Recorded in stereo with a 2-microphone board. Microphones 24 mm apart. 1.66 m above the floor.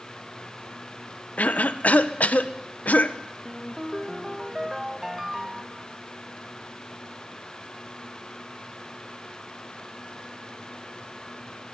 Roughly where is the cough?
Left.